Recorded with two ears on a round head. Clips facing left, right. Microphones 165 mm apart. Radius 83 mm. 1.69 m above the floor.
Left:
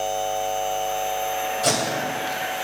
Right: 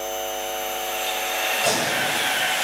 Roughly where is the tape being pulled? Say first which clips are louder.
Even; centre.